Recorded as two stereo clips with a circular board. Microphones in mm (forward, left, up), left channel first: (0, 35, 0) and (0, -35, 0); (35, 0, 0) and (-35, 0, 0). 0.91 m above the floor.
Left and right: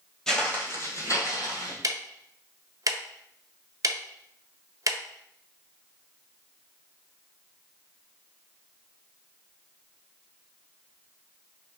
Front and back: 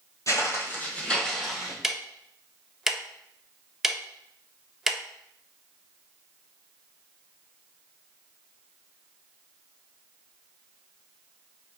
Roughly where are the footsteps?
Ahead.